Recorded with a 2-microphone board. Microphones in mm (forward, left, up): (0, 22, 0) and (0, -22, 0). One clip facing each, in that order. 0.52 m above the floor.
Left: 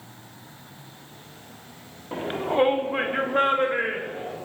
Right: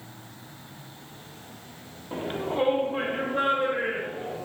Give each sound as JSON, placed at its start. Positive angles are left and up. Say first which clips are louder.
{"t": 2.1, "sound": "a shout", "louder": "left 4 dB", "side_deg": 15, "distance_m": 0.8}